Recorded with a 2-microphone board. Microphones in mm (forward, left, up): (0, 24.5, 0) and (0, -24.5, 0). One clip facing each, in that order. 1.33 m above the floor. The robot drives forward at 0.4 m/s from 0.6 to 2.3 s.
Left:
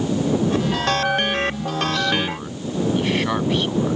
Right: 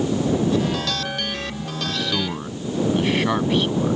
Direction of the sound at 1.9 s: Centre (ahead or behind).